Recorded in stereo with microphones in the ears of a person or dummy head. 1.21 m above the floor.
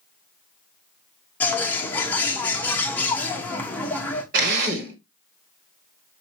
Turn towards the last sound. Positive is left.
turn(degrees=-65)  # may be behind; listen again after turning